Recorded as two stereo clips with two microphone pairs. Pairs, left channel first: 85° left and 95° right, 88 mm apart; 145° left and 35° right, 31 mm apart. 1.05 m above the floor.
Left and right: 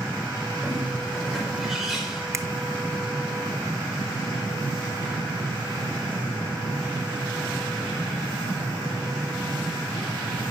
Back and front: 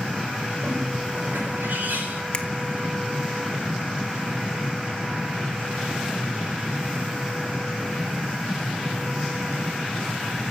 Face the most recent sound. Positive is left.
turn(degrees=-155)